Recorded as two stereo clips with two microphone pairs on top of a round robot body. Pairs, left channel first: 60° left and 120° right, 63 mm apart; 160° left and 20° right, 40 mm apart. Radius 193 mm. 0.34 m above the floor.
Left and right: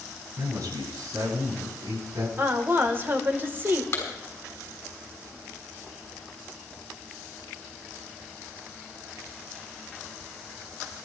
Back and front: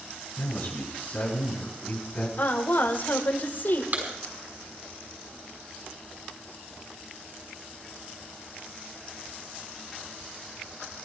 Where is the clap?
15° left, 6 m.